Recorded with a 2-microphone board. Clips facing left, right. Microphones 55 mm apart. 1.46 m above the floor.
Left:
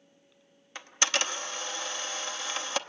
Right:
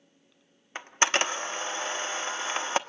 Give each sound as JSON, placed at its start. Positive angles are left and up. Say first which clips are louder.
{"t": 0.8, "sound": "a camera shutter", "louder": "right 4 dB", "side_deg": -30, "distance_m": 0.7}